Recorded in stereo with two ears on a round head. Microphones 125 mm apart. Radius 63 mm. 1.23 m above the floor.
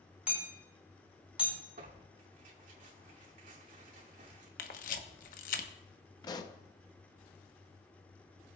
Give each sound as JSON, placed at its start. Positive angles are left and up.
{"t": 0.3, "sound": "hammering", "side_deg": -10, "distance_m": 4.5}
{"t": 1.8, "sound": "tearing paper", "side_deg": -65, "distance_m": 2.5}
{"t": 4.6, "sound": "a camera shutter", "side_deg": 65, "distance_m": 0.9}
{"t": 6.2, "sound": "a pop", "side_deg": 30, "distance_m": 0.7}